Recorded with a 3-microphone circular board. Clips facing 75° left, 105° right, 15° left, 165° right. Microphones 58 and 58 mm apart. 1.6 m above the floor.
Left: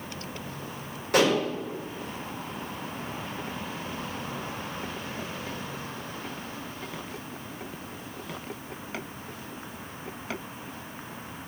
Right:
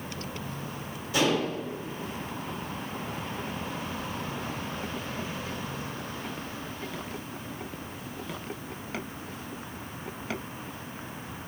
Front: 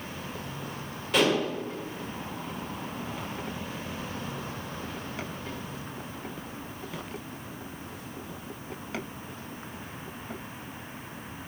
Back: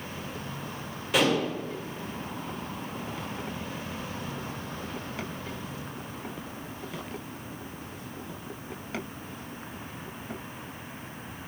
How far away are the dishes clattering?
About 5 m.